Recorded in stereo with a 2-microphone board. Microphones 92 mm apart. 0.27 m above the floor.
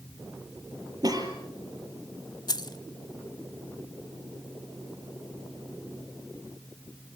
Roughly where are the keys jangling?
Left.